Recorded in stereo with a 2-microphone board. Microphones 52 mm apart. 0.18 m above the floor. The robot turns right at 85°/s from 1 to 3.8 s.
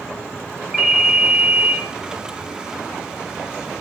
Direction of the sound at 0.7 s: 170° right.